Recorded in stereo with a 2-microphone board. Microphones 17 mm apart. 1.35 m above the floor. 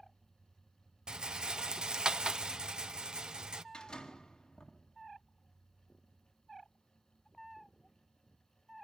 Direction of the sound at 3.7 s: 55° left (ahead or behind).